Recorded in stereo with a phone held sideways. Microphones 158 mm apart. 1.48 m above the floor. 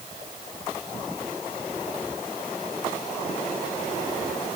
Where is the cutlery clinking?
No cutlery clinking in this recording.